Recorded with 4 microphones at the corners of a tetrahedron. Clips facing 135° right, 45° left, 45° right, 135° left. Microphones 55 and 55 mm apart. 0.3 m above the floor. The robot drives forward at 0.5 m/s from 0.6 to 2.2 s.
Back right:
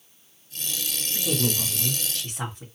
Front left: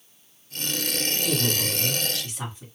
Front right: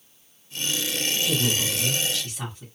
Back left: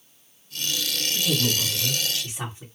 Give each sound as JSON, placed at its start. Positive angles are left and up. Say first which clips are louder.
{"t": 1.1, "sound": "a woman speaking", "louder": "back right 1 dB, back left 1 dB", "azimuth_deg": -150, "distance_m": 1.1}